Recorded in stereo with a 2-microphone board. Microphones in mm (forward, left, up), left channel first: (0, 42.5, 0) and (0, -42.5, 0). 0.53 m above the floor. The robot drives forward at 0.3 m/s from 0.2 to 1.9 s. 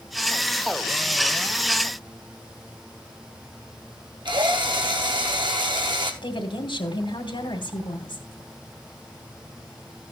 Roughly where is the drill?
Right.